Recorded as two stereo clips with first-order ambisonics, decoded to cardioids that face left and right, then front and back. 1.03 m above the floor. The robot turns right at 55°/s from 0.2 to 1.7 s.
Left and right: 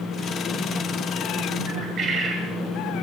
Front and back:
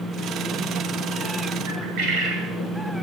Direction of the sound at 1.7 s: 150° right.